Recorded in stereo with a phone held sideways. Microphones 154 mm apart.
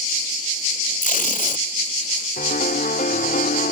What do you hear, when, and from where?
1.0 s tape being pulled: 60° left (ahead or behind)
2.4 s a piano: 75° left (ahead or behind)